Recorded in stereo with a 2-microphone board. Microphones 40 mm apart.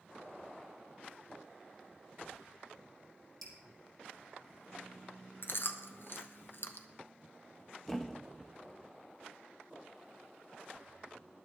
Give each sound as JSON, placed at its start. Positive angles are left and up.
{"t": 3.4, "sound": "dripping", "side_deg": 0, "distance_m": 3.5}
{"t": 5.4, "sound": "chewing", "side_deg": 60, "distance_m": 0.9}
{"t": 7.9, "sound": "a thud", "side_deg": 10, "distance_m": 0.5}